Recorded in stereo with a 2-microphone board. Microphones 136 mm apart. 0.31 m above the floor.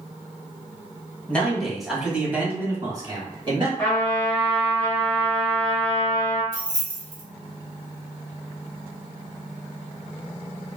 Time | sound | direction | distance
1.3 | a man speaking | 10° left (ahead or behind) | 1.5 m
3.8 | a trumpet | 15° left (ahead or behind) | 1.3 m
6.5 | keys jangling | 35° right (ahead or behind) | 1.4 m